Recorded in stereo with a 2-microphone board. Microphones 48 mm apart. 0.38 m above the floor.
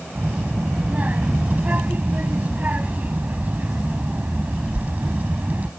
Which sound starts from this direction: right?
A child speaking, at 0.1 s.